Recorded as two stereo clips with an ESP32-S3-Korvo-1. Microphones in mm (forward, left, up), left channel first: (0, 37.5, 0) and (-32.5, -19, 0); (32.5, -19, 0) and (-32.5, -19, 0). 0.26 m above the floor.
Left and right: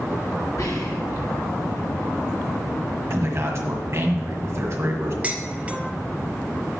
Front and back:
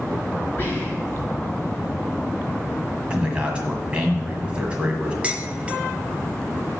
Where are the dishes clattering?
145° right, 0.8 m.